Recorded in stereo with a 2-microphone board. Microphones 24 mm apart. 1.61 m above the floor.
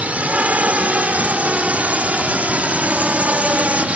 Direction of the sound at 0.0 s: 75° right (ahead or behind).